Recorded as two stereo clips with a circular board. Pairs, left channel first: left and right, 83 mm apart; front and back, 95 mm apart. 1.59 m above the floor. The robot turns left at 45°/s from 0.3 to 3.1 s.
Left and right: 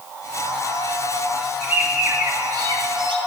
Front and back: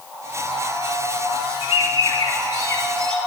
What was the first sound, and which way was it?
A bird, 15° right.